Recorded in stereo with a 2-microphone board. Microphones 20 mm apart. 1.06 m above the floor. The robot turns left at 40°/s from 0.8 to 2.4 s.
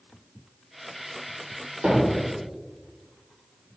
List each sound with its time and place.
1.8 s hammering: 55° right (ahead or behind), 3 m; by 2.3 s 75° right (ahead or behind), 3 m